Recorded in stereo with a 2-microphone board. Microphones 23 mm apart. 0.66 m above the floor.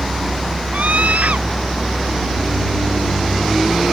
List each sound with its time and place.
0.7 s a scream: 85° right